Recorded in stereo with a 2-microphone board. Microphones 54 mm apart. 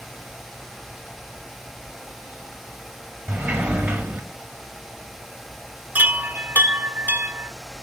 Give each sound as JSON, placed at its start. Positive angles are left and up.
{"t": 3.3, "sound": "a sliding door", "side_deg": -20, "distance_m": 1.0}
{"t": 6.0, "sound": "a chime", "side_deg": -30, "distance_m": 0.5}